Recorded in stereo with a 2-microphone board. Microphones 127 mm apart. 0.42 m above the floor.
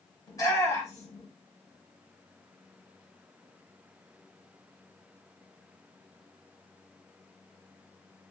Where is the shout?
25° left (ahead or behind), 1.8 m.